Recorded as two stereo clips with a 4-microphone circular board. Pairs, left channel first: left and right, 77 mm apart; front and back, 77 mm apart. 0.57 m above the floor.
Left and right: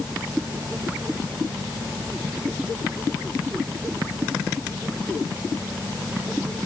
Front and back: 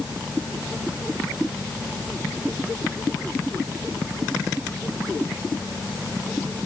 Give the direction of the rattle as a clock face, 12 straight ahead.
No rattle in this recording.